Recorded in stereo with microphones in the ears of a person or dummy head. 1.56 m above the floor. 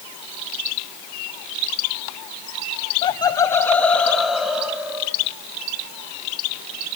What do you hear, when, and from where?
3.0 s laughter: 25° left (ahead or behind), 0.8 m; by 5.2 s 5° right (ahead or behind), 1.8 m